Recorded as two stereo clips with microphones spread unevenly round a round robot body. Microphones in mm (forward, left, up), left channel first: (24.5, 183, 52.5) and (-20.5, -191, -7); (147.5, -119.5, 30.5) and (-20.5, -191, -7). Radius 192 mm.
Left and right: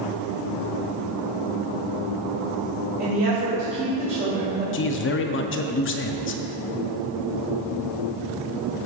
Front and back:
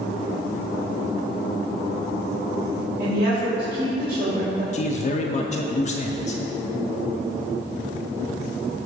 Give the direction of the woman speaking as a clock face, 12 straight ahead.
5 o'clock.